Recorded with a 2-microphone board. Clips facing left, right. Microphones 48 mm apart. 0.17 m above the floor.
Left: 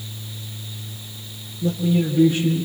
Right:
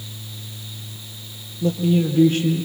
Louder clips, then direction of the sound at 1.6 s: Right 1 dB; 60° right (ahead or behind).